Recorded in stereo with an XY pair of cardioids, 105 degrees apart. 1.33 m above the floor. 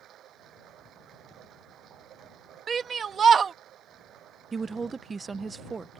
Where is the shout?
45° right.